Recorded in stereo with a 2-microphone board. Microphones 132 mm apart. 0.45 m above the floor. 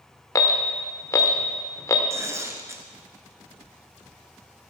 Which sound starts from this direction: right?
Tearing paper, at 2.1 s.